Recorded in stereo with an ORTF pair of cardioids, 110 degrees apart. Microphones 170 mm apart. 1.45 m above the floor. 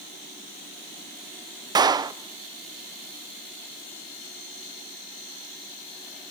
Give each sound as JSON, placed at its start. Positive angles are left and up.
{"t": 1.8, "sound": "a clap", "azimuth_deg": -25, "distance_m": 0.5}